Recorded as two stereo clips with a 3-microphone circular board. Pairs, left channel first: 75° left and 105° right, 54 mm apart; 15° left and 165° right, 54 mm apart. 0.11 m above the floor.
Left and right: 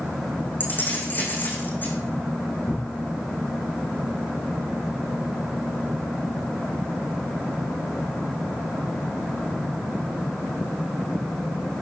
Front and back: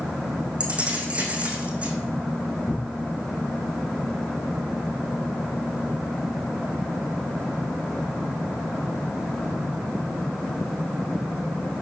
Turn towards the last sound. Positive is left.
turn(degrees=75)